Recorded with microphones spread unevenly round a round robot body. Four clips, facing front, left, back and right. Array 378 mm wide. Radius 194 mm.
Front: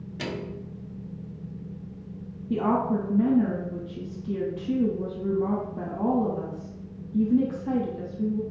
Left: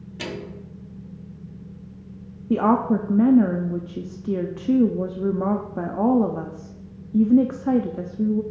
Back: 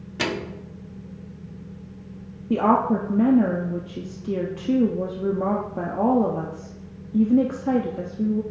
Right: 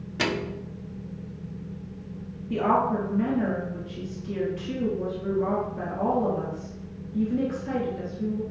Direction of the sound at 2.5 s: 115° left.